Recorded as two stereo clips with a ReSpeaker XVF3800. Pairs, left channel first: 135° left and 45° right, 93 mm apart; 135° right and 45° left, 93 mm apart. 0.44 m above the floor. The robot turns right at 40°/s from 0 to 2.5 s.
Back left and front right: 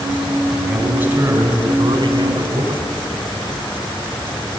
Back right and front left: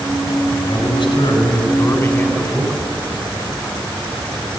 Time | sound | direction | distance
0.5 | a man speaking | 135° right | 4 m